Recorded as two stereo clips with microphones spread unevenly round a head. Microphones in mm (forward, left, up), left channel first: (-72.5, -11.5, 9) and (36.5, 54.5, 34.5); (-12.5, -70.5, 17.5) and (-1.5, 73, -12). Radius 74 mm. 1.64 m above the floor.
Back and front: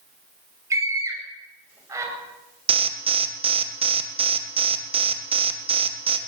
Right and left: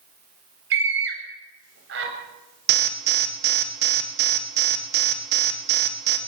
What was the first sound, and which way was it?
A scream, 100° left.